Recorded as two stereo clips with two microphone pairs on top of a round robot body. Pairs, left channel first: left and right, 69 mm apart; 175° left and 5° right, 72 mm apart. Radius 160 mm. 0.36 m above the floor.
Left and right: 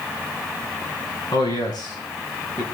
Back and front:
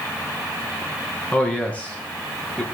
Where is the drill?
No drill in this recording.